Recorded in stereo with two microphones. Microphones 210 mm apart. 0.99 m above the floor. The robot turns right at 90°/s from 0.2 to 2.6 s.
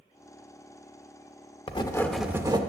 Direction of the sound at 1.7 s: 135° left.